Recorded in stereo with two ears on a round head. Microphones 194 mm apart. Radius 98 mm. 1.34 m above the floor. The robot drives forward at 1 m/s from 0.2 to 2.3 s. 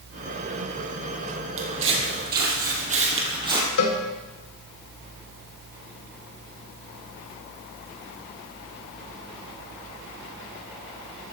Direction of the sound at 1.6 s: 65° right (ahead or behind).